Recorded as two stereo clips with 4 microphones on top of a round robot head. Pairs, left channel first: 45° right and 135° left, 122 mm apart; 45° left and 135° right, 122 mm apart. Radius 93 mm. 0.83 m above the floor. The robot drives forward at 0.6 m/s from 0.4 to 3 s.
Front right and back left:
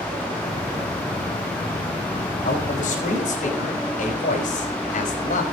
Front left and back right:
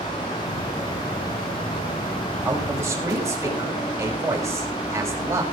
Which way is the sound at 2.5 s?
65° right.